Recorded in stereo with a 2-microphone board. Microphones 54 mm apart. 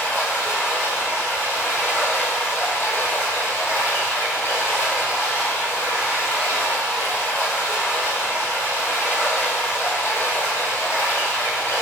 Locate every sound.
0.0 s running water: 55° left (ahead or behind), 1.4 m